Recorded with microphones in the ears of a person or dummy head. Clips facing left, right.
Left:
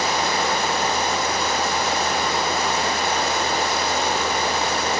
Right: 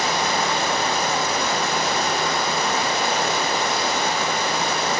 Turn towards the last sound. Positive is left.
turn(degrees=-60)  # may be behind; listen again after turning